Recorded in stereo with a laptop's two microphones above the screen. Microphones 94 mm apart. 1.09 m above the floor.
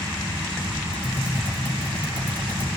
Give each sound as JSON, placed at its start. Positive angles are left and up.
{"t": 0.9, "sound": "typing on a keyboard", "side_deg": -15, "distance_m": 4.0}